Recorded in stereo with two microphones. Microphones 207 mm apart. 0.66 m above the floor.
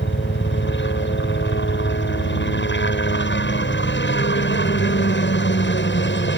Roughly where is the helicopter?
Left.